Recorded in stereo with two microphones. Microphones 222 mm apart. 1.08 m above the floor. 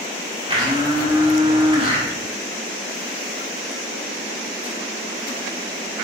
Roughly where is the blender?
Right.